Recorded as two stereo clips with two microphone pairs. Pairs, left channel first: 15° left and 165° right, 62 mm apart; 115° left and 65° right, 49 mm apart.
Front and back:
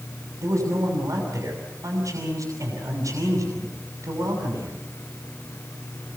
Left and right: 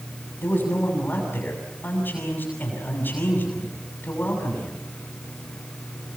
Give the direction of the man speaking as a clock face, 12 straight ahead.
6 o'clock.